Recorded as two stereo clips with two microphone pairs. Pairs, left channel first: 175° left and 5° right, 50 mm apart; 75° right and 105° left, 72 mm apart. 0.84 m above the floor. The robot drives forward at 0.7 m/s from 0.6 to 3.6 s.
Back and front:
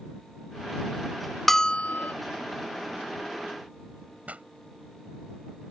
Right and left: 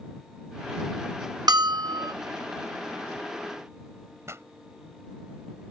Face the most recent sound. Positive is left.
turn(degrees=55)